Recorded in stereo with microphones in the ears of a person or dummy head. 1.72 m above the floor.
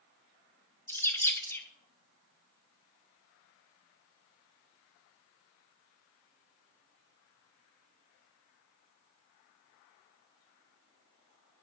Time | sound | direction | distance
0.9 | a bird | 10° left (ahead or behind) | 0.6 m